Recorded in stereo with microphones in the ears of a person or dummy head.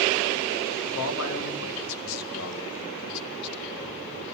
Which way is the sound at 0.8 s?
75° left (ahead or behind).